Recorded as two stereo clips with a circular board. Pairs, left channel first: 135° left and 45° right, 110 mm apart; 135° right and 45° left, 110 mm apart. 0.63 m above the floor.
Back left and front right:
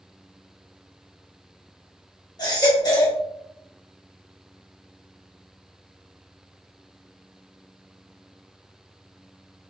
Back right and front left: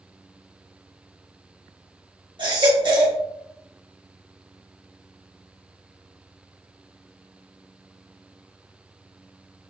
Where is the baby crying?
85° left, 1.3 m.